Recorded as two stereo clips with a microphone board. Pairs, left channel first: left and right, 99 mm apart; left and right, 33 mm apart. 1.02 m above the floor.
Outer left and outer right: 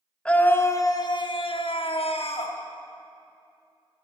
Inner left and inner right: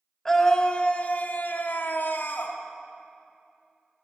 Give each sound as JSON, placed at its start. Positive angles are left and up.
{"t": 0.2, "sound": "a scream", "side_deg": 10, "distance_m": 1.1}